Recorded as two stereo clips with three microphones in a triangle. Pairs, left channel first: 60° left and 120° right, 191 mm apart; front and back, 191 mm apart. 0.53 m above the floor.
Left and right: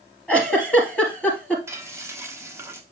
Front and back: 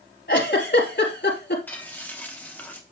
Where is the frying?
65° right, 1.3 m.